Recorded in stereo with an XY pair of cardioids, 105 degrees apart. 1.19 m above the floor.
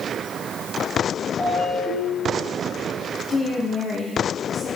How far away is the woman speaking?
About 1.7 m.